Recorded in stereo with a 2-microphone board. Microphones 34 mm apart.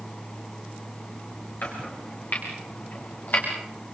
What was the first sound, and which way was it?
Chopping, 60° left (ahead or behind).